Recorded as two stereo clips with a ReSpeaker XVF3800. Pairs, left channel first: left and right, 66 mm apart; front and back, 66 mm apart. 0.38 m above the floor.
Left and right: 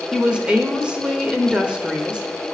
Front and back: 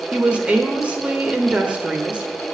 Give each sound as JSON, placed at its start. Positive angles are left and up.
{"t": 0.1, "sound": "a woman speaking", "azimuth_deg": -140, "distance_m": 0.8}